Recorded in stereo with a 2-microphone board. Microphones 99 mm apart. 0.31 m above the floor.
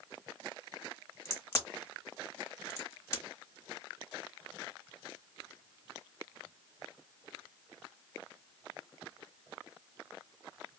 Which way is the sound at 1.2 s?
35° left (ahead or behind).